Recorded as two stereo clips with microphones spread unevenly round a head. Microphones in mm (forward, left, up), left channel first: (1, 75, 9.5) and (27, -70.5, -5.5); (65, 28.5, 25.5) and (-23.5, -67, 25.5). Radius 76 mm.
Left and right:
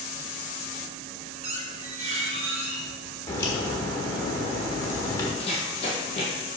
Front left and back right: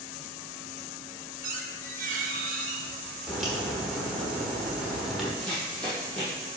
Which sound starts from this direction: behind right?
A squeak, at 1.4 s.